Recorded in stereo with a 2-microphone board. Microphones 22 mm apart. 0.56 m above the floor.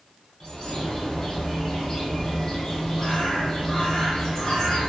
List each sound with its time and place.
0.4 s a bird: 25° left (ahead or behind), 1.0 m